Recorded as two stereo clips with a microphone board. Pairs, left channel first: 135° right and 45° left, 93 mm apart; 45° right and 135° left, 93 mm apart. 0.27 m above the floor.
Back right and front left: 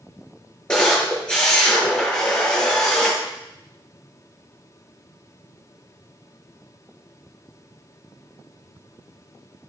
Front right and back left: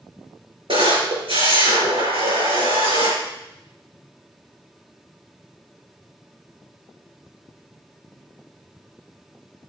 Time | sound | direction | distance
0.7 | a camera shutter | 145° left | 4.5 m